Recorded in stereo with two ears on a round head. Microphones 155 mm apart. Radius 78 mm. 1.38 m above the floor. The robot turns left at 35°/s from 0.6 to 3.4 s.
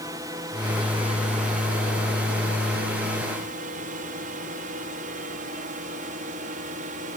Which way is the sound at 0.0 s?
20° right (ahead or behind).